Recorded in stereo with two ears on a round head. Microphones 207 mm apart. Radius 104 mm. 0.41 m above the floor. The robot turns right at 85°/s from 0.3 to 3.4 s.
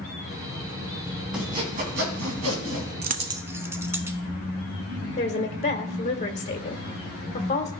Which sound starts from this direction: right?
A dropped coin, at 3.0 s.